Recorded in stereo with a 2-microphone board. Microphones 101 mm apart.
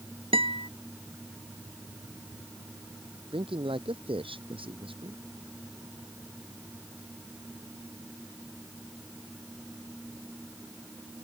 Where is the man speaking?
70° right (ahead or behind).